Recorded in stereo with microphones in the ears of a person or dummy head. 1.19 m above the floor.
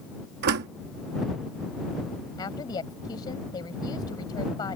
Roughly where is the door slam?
Right.